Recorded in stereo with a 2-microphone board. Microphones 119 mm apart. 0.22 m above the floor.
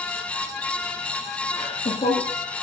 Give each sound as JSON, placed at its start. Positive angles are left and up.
{"t": 1.5, "sound": "laughter", "side_deg": 70, "distance_m": 3.0}